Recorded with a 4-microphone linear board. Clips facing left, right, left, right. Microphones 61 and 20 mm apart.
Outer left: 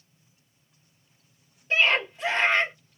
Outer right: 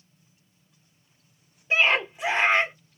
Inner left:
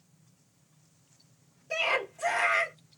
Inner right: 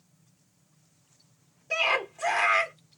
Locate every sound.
1.7 s a scream: 15° right (ahead or behind), 1.3 m